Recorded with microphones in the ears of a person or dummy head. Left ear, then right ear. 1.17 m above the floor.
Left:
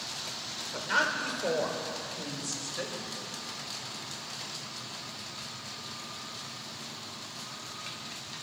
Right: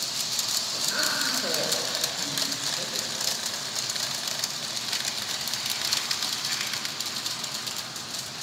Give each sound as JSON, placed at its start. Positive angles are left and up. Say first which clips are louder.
{"t": 0.7, "sound": "a woman speaking", "louder": "left 2 dB", "side_deg": 55, "distance_m": 4.5}